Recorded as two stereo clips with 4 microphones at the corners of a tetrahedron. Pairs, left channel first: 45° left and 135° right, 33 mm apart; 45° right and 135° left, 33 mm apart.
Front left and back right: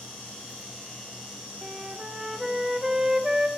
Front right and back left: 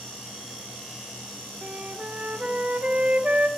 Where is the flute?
145° left, 1.3 m.